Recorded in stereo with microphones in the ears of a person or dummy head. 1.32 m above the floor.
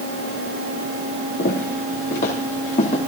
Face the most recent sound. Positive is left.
turn(degrees=40)  # may be behind; listen again after turning